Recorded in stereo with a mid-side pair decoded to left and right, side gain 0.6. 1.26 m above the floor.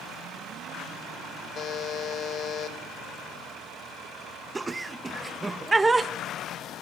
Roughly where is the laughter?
Ahead.